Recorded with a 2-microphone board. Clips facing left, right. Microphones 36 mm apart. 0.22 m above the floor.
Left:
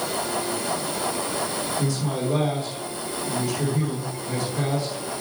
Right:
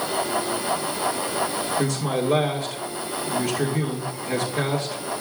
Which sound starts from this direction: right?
A man speaking, at 1.8 s.